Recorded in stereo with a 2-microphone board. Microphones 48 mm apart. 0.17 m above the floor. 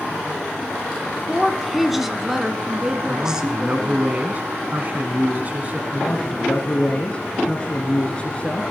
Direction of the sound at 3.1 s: 35° right (ahead or behind).